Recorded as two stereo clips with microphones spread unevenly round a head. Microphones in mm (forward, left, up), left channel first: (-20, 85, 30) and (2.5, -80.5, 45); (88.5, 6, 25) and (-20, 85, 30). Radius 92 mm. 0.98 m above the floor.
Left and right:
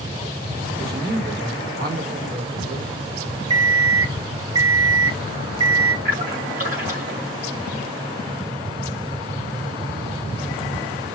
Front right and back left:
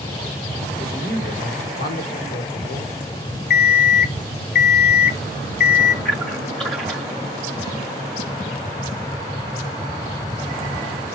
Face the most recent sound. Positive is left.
turn(degrees=-120)